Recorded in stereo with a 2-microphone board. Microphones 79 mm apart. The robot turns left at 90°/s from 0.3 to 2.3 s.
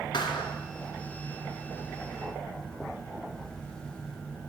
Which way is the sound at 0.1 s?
70° left.